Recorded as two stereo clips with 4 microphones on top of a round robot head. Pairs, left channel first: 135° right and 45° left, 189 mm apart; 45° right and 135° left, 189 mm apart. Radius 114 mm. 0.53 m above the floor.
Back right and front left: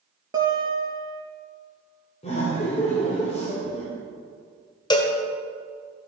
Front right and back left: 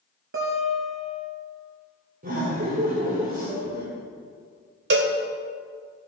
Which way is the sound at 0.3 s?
115° left.